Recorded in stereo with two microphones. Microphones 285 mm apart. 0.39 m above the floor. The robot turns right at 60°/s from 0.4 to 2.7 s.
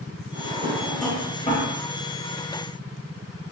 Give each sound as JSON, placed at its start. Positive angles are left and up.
{"t": 0.3, "sound": "a drawer", "side_deg": -35, "distance_m": 0.8}